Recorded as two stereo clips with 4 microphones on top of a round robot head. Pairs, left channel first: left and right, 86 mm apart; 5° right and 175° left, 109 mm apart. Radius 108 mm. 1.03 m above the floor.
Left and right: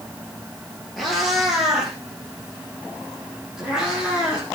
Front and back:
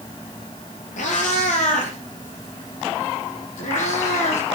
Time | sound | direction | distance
1.0 | a cat meowing | straight ahead | 3 m